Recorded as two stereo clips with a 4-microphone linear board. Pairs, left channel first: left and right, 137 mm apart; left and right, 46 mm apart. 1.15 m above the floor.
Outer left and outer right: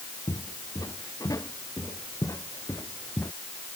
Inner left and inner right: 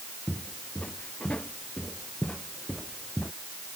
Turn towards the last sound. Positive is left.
turn(degrees=15)  # may be behind; listen again after turning